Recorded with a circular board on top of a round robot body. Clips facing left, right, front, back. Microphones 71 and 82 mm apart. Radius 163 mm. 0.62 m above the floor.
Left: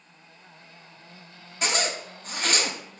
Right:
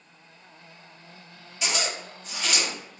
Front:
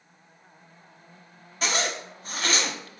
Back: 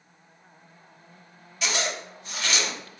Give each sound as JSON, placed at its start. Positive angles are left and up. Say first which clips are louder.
{"t": 1.6, "sound": "a zipper", "louder": "left 2 dB, front 1 dB", "azimuth_deg": 45, "distance_m": 0.6}